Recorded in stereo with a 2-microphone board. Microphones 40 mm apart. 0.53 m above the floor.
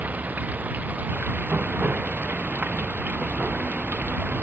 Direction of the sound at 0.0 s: 45° right (ahead or behind).